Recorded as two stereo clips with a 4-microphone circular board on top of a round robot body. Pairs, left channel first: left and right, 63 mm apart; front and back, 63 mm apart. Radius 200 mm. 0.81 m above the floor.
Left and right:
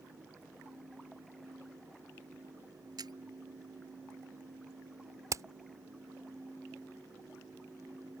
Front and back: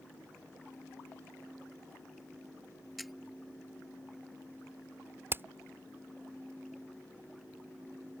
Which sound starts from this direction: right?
A camera shutter, at 3.0 s.